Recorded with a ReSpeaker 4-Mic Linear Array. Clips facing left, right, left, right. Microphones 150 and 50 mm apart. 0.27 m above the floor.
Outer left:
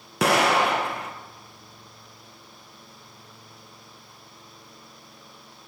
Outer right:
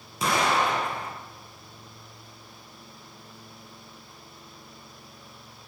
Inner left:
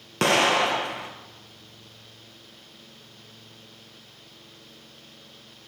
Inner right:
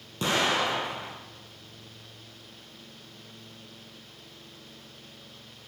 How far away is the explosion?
About 1.0 m.